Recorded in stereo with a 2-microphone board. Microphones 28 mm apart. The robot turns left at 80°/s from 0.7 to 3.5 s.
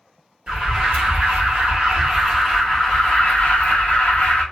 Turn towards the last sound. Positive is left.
turn(degrees=95)